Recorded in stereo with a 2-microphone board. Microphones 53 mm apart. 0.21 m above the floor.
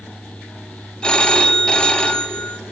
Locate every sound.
1.0 s a phone ringing: 15° left (ahead or behind), 0.5 m